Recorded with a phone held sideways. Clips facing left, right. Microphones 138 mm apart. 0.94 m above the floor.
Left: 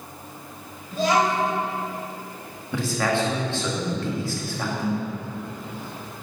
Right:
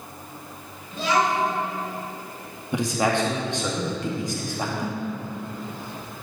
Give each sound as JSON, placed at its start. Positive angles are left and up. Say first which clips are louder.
{"t": 0.9, "sound": "a child speaking", "louder": "left 2 dB", "side_deg": 40, "distance_m": 3.5}
{"t": 2.7, "sound": "a man speaking", "louder": "right 1 dB", "side_deg": -20, "distance_m": 1.5}